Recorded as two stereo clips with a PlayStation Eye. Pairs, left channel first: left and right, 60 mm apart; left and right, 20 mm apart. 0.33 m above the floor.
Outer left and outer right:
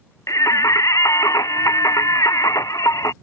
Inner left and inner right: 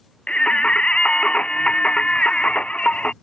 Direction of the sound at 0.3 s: 75° left (ahead or behind).